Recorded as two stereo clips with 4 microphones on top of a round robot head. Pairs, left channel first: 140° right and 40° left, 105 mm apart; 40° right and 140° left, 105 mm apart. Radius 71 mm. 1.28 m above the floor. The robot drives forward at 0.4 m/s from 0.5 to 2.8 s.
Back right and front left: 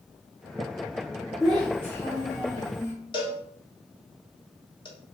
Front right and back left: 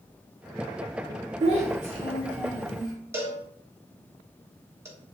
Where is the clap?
I don't hear a clap.